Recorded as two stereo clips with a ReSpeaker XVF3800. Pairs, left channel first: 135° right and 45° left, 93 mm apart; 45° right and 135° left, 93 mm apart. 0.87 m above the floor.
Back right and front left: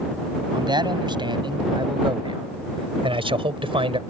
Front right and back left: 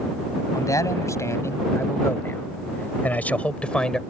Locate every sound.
0.5 s a man speaking: 10° left; by 4.0 s 40° left